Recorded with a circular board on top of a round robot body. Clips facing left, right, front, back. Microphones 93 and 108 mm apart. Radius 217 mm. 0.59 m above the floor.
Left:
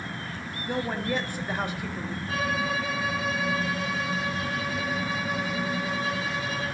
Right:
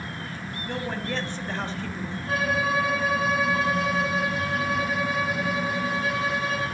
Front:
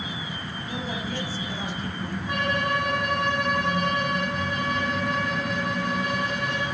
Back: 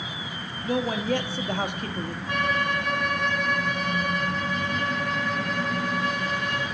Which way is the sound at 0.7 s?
165° left.